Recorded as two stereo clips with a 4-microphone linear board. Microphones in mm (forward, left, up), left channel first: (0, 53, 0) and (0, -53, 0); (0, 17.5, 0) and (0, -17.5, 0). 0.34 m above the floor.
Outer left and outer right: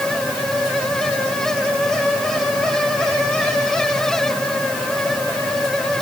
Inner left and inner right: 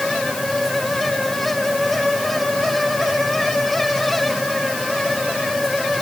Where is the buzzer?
No buzzer in this recording.